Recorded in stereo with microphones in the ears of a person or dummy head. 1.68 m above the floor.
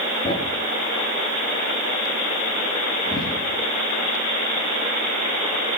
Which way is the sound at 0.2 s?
25° left (ahead or behind).